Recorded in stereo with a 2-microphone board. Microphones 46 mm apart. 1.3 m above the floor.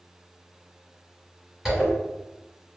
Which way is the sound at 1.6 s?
5° right (ahead or behind).